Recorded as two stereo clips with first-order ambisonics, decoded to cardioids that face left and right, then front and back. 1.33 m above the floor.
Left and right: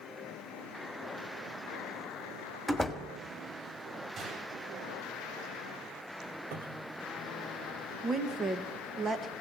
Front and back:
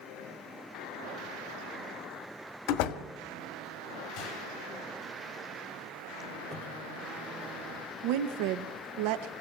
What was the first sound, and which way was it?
A door slam, 5° right.